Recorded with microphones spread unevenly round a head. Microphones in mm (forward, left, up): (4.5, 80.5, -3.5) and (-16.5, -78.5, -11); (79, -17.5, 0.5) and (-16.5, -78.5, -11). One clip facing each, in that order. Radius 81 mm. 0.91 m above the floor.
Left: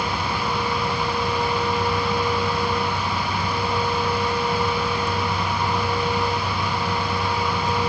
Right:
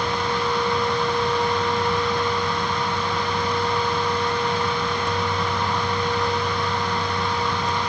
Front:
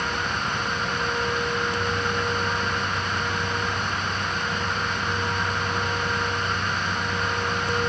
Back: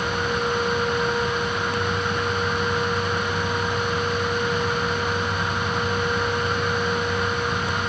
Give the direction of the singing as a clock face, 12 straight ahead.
I don't hear singing.